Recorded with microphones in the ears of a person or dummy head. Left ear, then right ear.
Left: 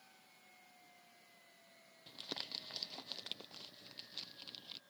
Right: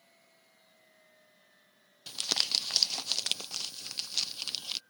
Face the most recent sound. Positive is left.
turn(degrees=-55)  # may be behind; listen again after turning